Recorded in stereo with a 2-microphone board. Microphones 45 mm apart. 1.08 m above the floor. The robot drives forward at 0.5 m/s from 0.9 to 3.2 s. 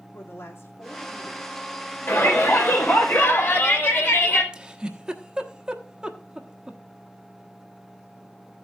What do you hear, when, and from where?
0.1 s a woman speaking: 70° left (ahead or behind), 3 m; by 3.1 s 55° left (ahead or behind), 3.5 m
2.1 s a shout: 55° left (ahead or behind), 5 m; by 4.4 s 50° left (ahead or behind), 5 m
4.5 s a giggle: 20° right (ahead or behind), 1.1 m